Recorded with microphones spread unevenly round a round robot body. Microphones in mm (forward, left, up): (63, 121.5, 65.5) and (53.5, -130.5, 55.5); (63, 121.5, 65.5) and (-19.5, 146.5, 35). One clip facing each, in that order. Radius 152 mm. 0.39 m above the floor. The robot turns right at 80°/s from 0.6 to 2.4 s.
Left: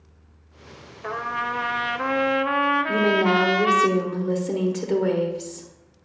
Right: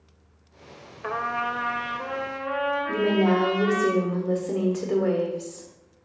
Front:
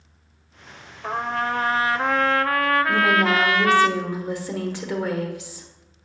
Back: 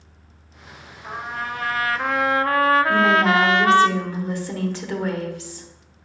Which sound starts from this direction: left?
A woman speaking, at 2.9 s.